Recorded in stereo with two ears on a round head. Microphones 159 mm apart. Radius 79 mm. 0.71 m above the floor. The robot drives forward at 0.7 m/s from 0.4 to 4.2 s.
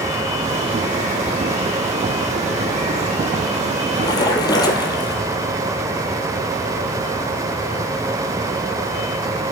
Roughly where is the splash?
Left.